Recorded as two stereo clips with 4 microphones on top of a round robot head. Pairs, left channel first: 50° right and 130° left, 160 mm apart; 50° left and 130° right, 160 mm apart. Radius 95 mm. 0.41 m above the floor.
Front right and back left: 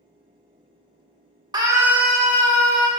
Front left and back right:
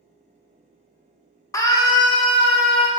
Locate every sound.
1.5 s a scream: 100° left, 1.4 m; by 2.9 s 5° left, 1.8 m